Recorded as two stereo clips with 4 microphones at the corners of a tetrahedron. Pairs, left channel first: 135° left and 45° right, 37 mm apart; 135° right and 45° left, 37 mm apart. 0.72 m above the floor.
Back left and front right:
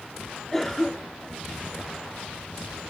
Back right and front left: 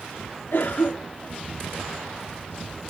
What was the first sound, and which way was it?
A cough, 145° right.